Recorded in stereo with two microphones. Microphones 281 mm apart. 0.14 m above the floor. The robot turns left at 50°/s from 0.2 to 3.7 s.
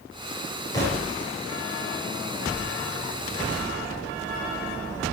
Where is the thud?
15° left (ahead or behind), 8.5 m; by 1.1 s 5° right (ahead or behind), 8.5 m.